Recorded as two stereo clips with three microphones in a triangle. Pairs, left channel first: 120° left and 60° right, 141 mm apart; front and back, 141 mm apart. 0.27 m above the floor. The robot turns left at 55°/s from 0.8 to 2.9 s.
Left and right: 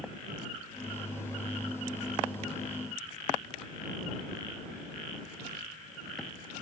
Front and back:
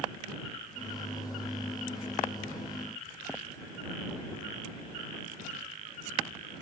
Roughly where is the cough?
No cough in this recording.